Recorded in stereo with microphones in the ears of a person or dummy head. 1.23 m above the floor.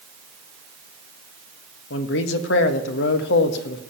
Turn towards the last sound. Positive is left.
turn(degrees=75)  # may be behind; listen again after turning